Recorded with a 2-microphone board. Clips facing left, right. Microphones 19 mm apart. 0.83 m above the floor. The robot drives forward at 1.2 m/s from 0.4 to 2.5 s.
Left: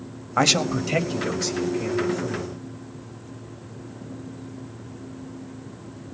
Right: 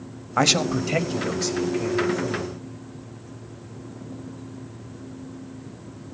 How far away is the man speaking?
About 0.8 m.